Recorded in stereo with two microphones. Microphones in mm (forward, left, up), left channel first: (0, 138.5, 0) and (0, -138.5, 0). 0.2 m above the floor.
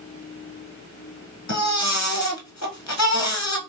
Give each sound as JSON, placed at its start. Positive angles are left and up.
{"t": 1.5, "sound": "a baby crying", "side_deg": 70, "distance_m": 1.0}